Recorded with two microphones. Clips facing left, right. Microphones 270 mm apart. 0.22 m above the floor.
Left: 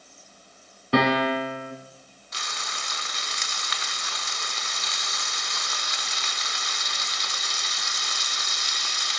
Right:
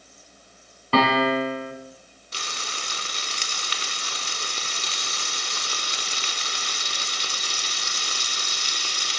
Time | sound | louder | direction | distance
0.9 | a piano | right 1 dB | 15° left (ahead or behind) | 1.5 m
2.3 | frying | right 3 dB | 35° right (ahead or behind) | 0.7 m